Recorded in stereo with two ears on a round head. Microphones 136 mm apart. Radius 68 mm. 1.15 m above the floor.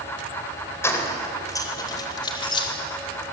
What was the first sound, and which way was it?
Keys jangling, 20° left (ahead or behind).